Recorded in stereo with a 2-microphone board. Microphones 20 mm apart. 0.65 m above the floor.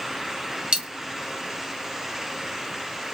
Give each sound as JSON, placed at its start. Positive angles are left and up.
{"t": 0.7, "sound": "a dropped coin", "side_deg": -60, "distance_m": 1.4}